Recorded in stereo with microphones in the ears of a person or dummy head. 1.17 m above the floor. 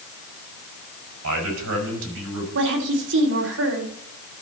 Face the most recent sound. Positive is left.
turn(degrees=-70)  # may be behind; listen again after turning